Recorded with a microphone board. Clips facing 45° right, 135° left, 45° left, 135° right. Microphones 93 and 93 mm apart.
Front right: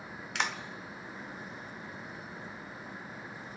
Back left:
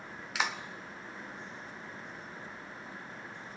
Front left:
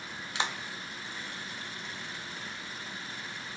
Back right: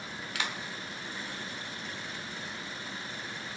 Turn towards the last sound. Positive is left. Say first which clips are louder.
# even, front left 3 dB
turn(degrees=55)